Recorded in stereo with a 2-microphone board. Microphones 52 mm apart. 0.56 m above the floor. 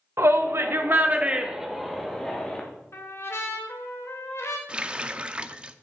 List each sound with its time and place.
0.2 s a shout: 70° right (ahead or behind), 1.6 m; by 2.6 s 15° left (ahead or behind), 2.5 m
2.9 s a trumpet: 60° left (ahead or behind), 1.5 m
4.7 s a running tap: 20° right (ahead or behind), 0.5 m